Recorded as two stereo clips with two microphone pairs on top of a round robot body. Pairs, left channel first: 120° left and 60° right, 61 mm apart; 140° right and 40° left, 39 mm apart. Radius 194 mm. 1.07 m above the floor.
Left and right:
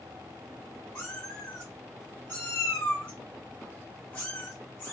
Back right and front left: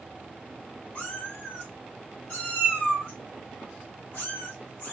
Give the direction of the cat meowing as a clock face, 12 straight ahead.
6 o'clock.